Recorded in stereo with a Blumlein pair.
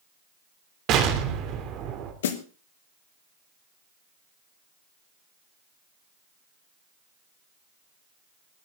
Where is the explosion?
35° right, 3 m.